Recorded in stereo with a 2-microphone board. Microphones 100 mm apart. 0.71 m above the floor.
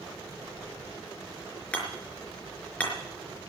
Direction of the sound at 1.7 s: 10° left (ahead or behind).